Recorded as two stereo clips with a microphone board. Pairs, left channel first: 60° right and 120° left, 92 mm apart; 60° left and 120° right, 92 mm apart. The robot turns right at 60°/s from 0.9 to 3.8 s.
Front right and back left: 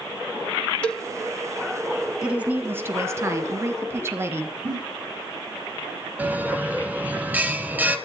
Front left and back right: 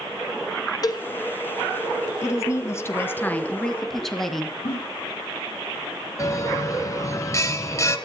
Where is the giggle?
80° left, 5.5 m.